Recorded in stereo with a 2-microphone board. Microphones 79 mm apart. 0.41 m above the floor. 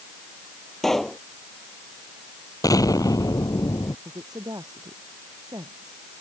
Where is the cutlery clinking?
I don't hear cutlery clinking.